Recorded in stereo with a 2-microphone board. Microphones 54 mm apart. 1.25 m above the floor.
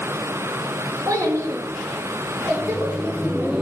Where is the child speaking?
75° right (ahead or behind), 1.1 m; by 3.5 s 45° right (ahead or behind), 3 m.